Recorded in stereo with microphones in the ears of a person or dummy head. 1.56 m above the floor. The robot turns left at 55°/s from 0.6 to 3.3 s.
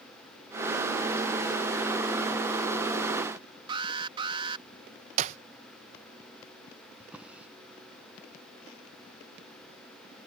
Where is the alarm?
30° right (ahead or behind).